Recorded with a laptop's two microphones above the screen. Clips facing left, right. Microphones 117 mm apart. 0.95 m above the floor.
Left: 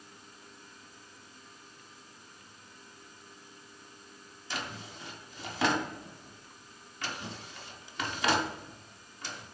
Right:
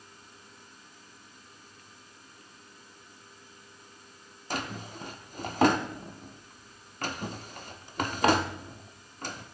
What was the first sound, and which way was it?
A drawer, 45° right (ahead or behind).